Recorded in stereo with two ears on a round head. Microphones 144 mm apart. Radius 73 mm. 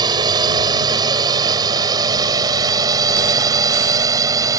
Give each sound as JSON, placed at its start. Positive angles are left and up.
{"t": 0.0, "sound": "a drone", "side_deg": -25}